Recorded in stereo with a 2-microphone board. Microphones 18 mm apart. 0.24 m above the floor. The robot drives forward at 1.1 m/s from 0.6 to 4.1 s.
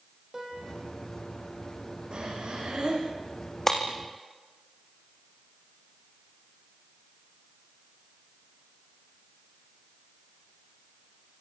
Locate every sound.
0.3 s a piano: 15° right (ahead or behind), 7 m
2.1 s breathing: 55° right (ahead or behind), 9 m; by 3.1 s 50° right (ahead or behind), 10 m
3.7 s breaking glass: 20° left (ahead or behind), 5.5 m